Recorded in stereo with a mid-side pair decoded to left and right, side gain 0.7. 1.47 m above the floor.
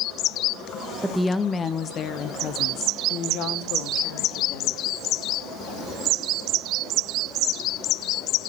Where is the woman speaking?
5° right, 0.8 m; by 4.8 s 80° left, 3 m.